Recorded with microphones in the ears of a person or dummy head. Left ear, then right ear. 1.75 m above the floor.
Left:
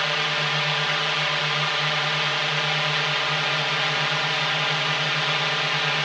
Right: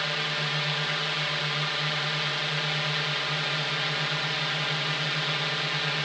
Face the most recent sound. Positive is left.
turn(degrees=25)  # may be behind; listen again after turning